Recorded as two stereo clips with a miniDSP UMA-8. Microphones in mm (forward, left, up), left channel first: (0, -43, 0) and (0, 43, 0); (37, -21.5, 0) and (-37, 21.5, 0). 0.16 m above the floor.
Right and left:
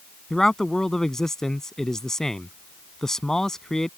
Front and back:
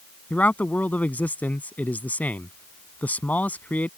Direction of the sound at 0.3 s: 15° right.